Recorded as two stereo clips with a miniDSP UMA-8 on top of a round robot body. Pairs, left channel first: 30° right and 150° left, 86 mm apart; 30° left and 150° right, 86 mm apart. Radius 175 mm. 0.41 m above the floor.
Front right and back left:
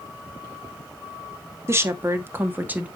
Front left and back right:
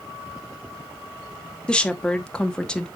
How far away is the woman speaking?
About 1.8 m.